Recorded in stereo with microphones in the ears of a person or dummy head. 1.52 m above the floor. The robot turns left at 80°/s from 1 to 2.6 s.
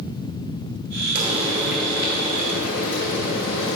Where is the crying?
No crying in this recording.